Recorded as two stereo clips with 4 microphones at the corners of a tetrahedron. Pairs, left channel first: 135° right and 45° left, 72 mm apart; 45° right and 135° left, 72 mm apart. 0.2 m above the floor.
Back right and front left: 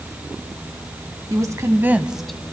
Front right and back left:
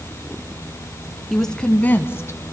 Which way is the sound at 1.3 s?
40° left.